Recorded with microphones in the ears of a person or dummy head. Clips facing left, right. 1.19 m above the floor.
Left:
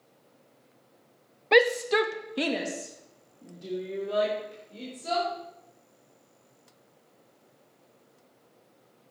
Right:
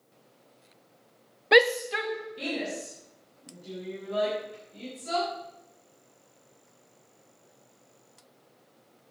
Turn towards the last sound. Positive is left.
turn(degrees=75)  # may be behind; listen again after turning